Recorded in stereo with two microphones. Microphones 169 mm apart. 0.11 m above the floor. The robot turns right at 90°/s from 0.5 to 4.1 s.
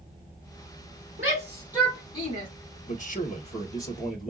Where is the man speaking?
70° left, 2 m; by 4.3 s straight behind, 2 m.